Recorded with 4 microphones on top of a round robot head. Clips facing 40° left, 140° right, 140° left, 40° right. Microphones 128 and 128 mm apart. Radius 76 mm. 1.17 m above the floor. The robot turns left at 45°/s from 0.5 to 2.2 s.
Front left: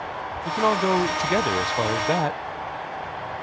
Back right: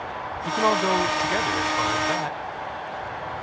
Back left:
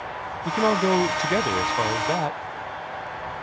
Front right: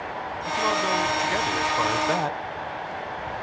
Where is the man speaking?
130° left; by 2.4 s 55° left.